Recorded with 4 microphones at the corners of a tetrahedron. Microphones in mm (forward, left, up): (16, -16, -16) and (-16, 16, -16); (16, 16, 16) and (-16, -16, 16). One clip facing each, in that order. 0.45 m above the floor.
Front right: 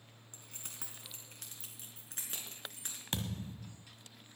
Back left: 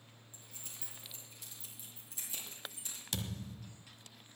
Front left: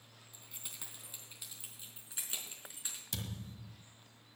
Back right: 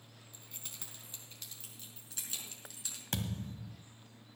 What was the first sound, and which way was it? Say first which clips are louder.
Keys jangling: front right 3 dB, even; 40° right.